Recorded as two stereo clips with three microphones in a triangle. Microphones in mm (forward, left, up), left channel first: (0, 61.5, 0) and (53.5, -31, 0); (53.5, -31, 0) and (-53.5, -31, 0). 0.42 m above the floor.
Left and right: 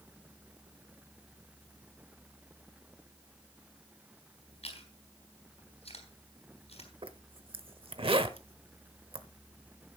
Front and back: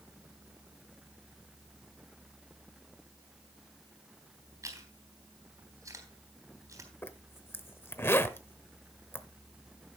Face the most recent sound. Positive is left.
turn(degrees=-65)